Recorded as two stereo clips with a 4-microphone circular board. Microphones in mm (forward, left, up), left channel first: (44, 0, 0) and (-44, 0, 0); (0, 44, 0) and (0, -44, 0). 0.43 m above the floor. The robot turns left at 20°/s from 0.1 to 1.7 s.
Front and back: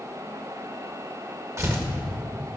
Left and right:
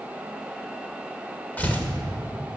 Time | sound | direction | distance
1.6 | tearing paper | 150° left | 1.5 m